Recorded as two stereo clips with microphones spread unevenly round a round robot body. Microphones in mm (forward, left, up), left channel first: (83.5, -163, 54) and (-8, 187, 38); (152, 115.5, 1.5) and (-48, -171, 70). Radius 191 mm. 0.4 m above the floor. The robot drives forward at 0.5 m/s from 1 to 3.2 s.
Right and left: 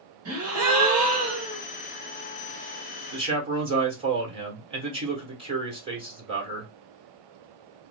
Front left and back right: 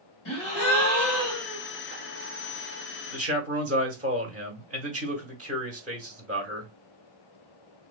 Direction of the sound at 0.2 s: 65° left.